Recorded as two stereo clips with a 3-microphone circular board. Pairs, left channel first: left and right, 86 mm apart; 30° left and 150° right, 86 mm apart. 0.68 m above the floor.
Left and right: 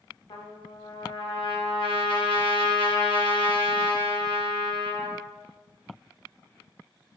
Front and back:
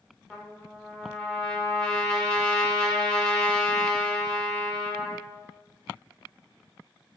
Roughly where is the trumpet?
Left.